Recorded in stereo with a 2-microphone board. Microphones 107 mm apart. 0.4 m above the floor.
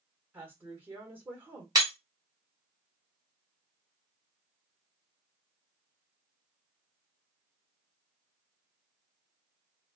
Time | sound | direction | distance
0.3 | a woman speaking | 20° right (ahead or behind) | 1.1 m
1.8 | breaking glass | 35° right (ahead or behind) | 1.4 m